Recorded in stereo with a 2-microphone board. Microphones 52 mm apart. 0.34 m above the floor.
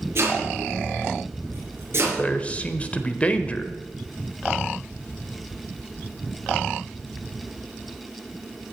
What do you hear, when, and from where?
0.1 s chopping: 55° right (ahead or behind), 5 m
2.2 s a man speaking: 25° left (ahead or behind), 0.9 m